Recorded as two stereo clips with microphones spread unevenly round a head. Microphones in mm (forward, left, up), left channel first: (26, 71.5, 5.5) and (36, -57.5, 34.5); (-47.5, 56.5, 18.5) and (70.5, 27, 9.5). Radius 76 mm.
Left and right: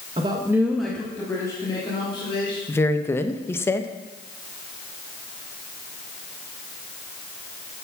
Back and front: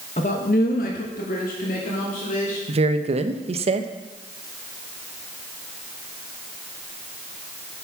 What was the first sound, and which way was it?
A man speaking, 145° right.